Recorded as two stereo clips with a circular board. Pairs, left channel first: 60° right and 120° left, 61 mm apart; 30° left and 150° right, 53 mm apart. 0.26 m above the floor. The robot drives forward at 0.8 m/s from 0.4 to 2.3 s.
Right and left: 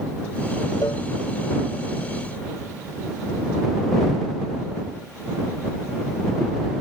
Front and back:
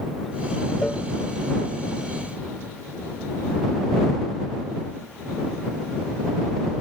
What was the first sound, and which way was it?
A cowbell, 45° right.